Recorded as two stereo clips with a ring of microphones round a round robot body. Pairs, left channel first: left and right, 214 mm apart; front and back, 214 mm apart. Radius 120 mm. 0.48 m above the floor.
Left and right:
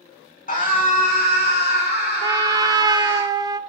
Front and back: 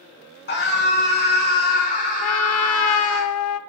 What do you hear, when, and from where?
0.5 s a scream: 40° left, 6 m; by 3.2 s 60° left, 6.5 m
2.2 s a trumpet: 15° right, 0.6 m